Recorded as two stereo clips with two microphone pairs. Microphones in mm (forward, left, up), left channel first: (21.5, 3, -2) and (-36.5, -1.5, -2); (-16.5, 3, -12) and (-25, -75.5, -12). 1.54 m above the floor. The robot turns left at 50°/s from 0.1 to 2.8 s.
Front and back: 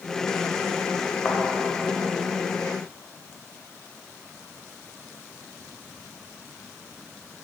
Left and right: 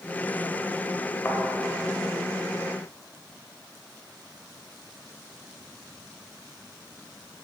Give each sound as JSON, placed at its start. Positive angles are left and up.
{"t": 1.2, "sound": "a thud", "azimuth_deg": 45, "distance_m": 1.7}